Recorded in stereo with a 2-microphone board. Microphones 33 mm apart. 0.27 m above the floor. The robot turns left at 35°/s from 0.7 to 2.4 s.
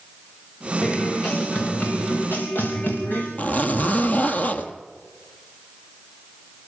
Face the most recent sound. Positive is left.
turn(degrees=50)  # may be behind; listen again after turning